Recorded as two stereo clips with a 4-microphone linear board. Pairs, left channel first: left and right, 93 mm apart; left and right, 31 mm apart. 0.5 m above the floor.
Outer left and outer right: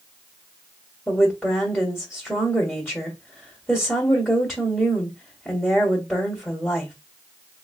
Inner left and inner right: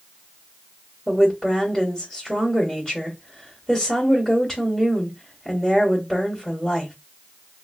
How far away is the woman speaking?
About 1.5 m.